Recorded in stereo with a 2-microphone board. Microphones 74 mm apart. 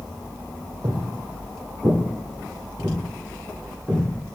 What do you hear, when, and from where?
0.8 s footsteps: 55° right (ahead or behind), 0.8 m; by 4.0 s 20° right (ahead or behind), 2.5 m